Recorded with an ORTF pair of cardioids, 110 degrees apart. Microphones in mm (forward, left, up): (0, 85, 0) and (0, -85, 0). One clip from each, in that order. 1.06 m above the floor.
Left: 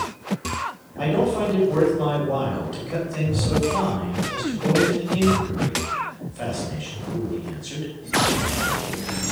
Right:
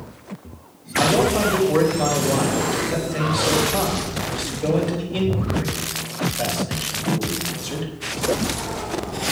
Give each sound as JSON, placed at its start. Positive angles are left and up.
{"t": 1.0, "sound": "a man speaking", "azimuth_deg": -35, "distance_m": 5.5}